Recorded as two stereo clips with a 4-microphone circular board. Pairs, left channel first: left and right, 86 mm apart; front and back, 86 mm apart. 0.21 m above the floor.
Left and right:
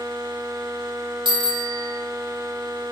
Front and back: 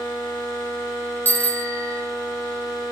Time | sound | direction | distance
1.2 | a bicycle bell | 70° right | 5 m